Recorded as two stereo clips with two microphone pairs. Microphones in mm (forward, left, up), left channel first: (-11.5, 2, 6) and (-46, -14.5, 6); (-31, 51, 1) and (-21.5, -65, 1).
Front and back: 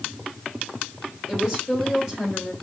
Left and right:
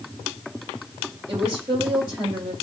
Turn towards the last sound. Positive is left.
turn(degrees=-45)